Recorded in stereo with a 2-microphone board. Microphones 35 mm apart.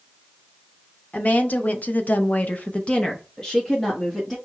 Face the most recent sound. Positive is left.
turn(degrees=0)  # may be behind; listen again after turning